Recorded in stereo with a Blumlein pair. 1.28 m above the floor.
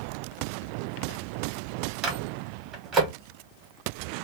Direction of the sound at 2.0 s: 30° right.